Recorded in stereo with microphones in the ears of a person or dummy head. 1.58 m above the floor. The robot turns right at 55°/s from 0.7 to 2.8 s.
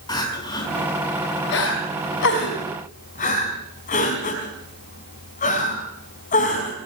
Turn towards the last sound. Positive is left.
turn(degrees=40)  # may be behind; listen again after turning